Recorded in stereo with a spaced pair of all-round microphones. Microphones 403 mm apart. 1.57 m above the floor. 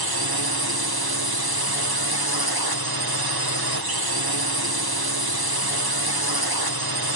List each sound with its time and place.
0.0 s a drone: 65° right (ahead or behind)